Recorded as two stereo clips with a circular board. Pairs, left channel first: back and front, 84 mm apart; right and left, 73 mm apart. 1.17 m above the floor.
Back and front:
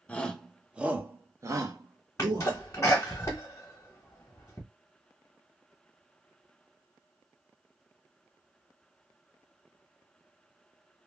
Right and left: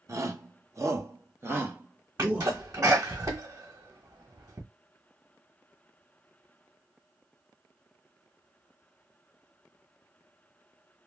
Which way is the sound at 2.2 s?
130° left.